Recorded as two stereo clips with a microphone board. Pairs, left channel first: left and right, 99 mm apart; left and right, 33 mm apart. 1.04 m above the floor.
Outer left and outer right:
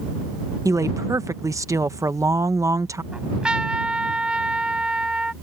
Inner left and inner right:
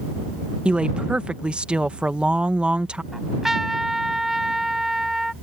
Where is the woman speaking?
35° right (ahead or behind).